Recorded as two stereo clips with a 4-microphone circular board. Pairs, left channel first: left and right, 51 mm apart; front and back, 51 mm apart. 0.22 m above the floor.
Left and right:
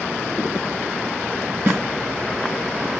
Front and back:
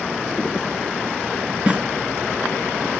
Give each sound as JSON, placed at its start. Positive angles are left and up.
{"t": 1.7, "sound": "a snare drum", "azimuth_deg": -120, "distance_m": 2.0}